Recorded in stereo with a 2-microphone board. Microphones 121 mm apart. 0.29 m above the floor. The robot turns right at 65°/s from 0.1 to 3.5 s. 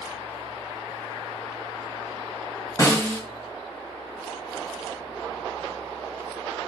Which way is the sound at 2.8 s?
30° left (ahead or behind).